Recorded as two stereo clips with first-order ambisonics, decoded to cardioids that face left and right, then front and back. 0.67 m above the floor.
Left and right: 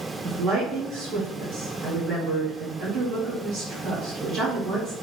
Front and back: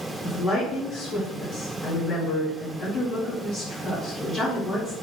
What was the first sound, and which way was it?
A woman speaking, 55° right.